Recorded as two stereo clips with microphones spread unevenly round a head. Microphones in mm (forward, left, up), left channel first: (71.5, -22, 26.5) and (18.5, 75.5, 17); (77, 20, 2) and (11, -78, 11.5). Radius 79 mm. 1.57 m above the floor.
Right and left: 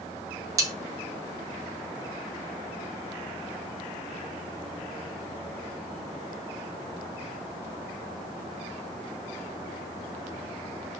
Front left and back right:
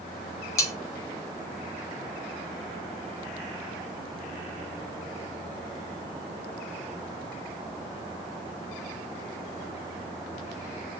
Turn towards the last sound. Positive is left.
turn(degrees=90)